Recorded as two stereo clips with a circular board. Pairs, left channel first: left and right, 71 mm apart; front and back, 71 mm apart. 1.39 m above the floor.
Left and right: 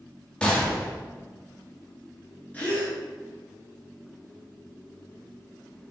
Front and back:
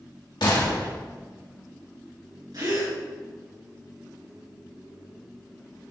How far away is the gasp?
About 3 m.